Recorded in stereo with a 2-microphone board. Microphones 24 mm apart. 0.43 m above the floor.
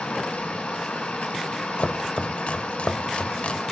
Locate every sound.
0.0 s running water: 75° left (ahead or behind), 5 m
1.8 s chopping: 60° left (ahead or behind), 0.8 m